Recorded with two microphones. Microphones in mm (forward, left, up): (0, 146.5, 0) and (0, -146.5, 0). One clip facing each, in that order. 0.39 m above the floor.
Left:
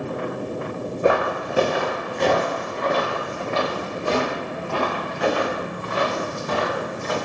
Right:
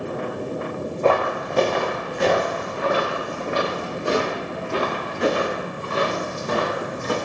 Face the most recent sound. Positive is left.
turn(degrees=-30)  # may be behind; listen again after turning